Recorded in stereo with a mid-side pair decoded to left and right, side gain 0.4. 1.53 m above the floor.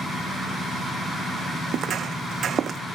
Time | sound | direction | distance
1.7 | footsteps | 70° right | ?